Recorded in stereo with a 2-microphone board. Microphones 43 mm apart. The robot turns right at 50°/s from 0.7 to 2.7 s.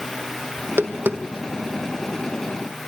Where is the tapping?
65° right (ahead or behind), 1.8 m; by 1.8 s 10° right (ahead or behind), 1.8 m.